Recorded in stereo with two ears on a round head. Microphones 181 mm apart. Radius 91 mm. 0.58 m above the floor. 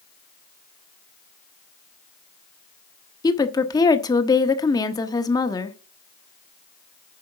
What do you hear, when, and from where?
3.2 s a woman speaking: 20° left (ahead or behind), 1.0 m